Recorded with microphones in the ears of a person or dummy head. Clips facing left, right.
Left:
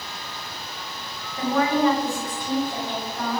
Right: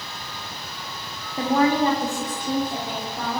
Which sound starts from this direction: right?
A woman speaking, at 1.4 s.